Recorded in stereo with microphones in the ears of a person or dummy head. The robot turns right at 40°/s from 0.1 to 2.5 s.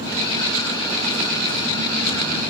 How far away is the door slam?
No door slam in this recording.